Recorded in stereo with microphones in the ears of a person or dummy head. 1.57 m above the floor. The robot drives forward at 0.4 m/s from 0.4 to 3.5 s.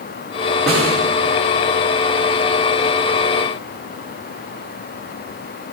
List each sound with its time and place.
0.7 s a snare drum: centre (ahead or behind), 5 m